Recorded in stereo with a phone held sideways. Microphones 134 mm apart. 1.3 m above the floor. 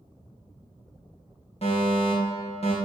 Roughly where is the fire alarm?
Left.